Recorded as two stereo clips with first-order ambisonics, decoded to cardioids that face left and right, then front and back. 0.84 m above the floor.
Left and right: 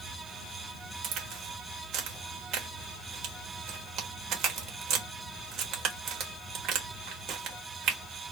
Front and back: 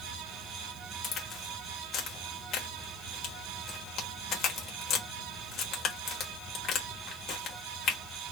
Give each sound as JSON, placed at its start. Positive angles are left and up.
{"t": 1.0, "sound": "a crack", "azimuth_deg": -45, "distance_m": 1.5}